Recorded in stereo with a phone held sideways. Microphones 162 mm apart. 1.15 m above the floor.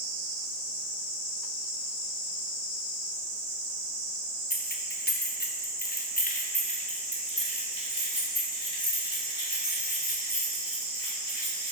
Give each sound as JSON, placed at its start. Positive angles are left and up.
{"t": 4.5, "sound": "keys jangling", "side_deg": 65, "distance_m": 0.9}